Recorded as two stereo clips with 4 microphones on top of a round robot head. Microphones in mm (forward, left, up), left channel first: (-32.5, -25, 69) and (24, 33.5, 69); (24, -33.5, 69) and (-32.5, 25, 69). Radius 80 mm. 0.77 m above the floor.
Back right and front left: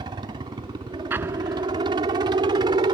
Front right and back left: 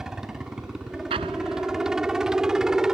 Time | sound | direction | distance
0.0 | a helicopter | 50° left | ?
1.1 | an explosion | 115° left | ?